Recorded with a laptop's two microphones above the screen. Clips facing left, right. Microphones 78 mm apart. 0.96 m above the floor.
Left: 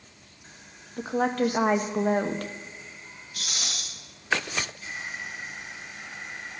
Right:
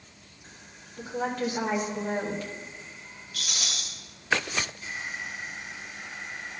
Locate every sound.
1.0 s a woman speaking: 60° left (ahead or behind), 0.9 m
3.3 s a rattle: 25° left (ahead or behind), 2.5 m